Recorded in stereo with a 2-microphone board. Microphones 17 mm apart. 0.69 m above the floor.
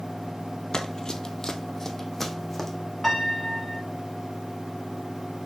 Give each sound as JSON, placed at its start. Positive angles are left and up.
{"t": 0.7, "sound": "running footsteps", "side_deg": 40, "distance_m": 0.9}
{"t": 3.0, "sound": "a piano", "side_deg": 5, "distance_m": 3.5}